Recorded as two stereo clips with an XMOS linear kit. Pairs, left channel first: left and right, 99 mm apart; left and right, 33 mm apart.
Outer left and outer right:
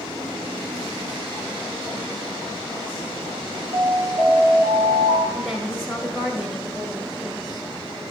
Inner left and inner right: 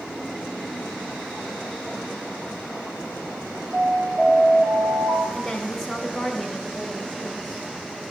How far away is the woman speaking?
About 1.4 m.